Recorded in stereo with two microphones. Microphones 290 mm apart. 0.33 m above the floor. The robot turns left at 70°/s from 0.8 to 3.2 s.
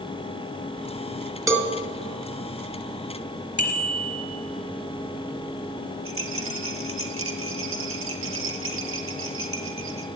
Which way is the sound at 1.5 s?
10° right (ahead or behind).